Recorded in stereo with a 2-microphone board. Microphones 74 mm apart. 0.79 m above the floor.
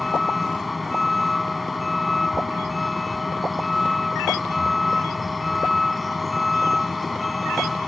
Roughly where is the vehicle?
Centre.